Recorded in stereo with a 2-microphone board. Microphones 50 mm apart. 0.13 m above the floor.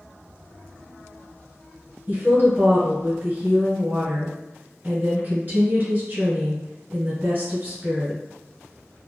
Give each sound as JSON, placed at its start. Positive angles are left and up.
{"t": 2.1, "sound": "a woman speaking", "side_deg": -40, "distance_m": 1.3}